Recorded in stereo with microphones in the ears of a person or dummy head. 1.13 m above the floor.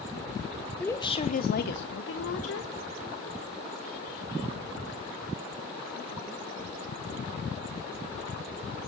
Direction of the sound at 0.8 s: 10° left (ahead or behind).